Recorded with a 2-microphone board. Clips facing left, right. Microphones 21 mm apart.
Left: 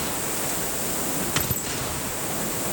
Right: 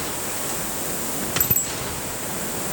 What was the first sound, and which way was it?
A bicycle bell, 60° right (ahead or behind).